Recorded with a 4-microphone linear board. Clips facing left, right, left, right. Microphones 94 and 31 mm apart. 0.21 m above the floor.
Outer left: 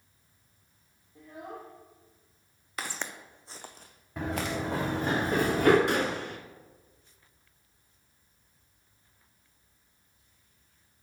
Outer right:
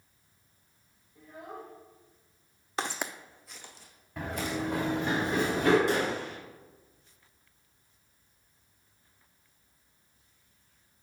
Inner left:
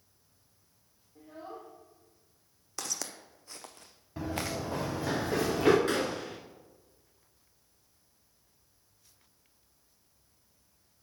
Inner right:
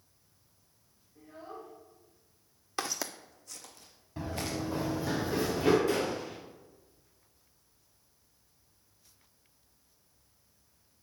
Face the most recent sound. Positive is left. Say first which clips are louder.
# even, even
turn(degrees=60)  # may be behind; listen again after turning